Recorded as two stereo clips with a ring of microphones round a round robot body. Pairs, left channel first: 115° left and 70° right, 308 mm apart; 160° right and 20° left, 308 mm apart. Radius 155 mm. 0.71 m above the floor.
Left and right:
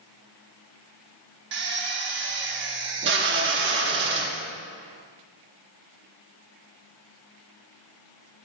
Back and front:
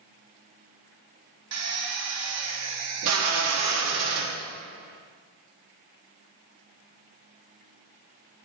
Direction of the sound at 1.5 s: 15° right.